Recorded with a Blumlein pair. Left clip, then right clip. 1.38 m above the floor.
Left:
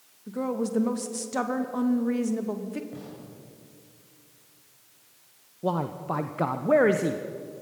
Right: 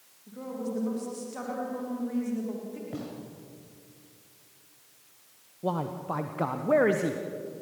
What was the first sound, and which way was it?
A woman speaking, 60° left.